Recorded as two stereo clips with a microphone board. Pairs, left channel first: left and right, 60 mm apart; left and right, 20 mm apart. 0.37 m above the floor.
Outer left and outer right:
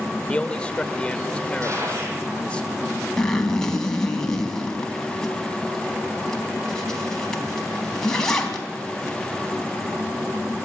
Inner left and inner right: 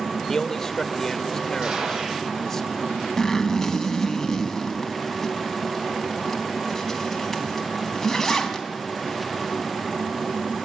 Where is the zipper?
10° left (ahead or behind), 3.5 m.